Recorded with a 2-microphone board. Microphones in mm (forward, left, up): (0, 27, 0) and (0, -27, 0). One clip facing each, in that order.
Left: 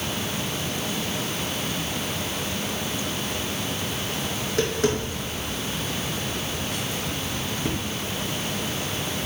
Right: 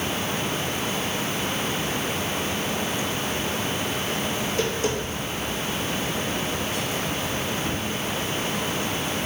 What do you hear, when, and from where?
4.4 s tapping: 60° left (ahead or behind), 4 m